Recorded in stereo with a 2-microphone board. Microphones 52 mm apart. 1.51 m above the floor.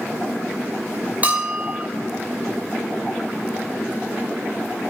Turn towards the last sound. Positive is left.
turn(degrees=-30)  # may be behind; listen again after turning